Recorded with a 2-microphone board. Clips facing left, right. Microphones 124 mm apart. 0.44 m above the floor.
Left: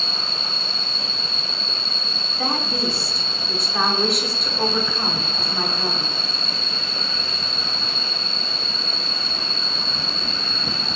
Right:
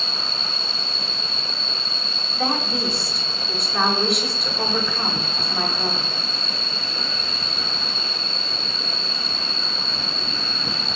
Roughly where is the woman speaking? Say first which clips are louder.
Right 1 dB; centre.